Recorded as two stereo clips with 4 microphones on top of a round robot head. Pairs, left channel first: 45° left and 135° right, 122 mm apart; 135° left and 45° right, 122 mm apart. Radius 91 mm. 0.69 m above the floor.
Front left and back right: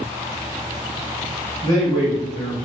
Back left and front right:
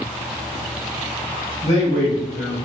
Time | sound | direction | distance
1.6 | a man speaking | 100° left | 1.6 m